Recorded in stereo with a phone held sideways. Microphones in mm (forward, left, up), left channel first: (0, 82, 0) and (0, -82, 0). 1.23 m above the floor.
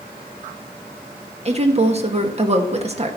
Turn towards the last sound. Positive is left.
turn(degrees=-40)  # may be behind; listen again after turning